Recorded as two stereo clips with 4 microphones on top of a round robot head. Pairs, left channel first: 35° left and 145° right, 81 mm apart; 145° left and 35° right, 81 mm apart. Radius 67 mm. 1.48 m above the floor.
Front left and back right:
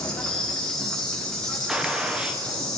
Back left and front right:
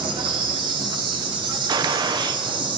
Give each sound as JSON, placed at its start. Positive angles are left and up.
{"t": 0.0, "sound": "an insect", "azimuth_deg": -45, "distance_m": 1.2}
{"t": 1.7, "sound": "a gunshot", "azimuth_deg": -65, "distance_m": 0.5}